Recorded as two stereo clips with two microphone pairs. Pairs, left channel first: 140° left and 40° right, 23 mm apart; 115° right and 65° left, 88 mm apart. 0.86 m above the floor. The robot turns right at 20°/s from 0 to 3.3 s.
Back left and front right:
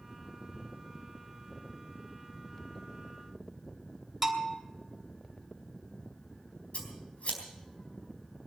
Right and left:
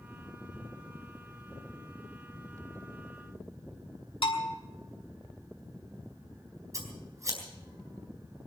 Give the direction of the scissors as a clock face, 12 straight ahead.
8 o'clock.